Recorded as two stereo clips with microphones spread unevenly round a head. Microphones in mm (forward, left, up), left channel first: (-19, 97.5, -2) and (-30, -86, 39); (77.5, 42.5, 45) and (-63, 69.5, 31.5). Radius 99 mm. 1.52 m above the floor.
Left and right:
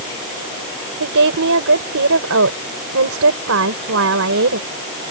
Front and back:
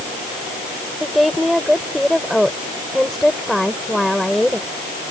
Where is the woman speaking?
100° right.